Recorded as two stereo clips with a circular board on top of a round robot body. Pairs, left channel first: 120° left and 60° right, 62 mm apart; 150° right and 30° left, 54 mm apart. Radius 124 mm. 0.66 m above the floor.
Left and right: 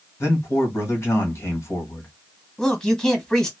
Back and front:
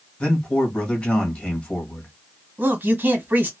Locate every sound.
0.2 s a man speaking: 150° left, 1.4 m
2.6 s a man speaking: 45° left, 1.3 m